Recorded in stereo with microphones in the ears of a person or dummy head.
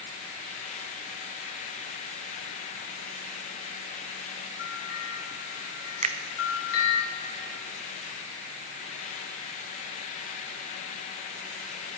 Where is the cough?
No cough in this recording.